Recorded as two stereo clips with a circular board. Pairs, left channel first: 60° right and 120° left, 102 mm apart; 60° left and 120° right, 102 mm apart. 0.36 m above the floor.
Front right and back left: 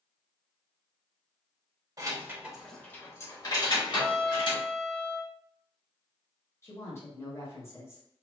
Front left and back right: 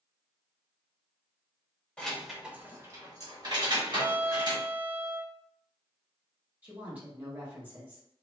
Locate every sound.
2.0 s keys jangling: 135° left, 0.6 m; by 4.6 s 85° right, 1.4 m
3.9 s a violin: 165° right, 0.8 m
6.6 s a woman speaking: 70° right, 1.1 m